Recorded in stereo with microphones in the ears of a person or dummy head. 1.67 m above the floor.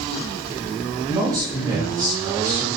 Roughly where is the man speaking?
Centre.